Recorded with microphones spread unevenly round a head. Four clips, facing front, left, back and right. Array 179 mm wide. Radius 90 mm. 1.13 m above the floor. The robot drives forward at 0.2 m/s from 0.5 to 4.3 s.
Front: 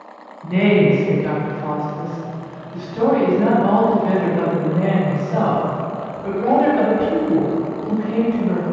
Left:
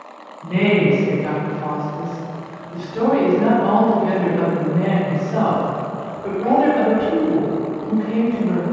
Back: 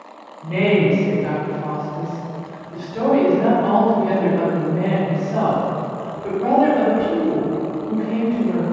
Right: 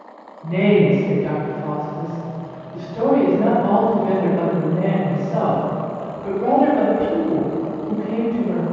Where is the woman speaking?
110° left, 1.5 m; by 8.6 s 130° left, 1.9 m.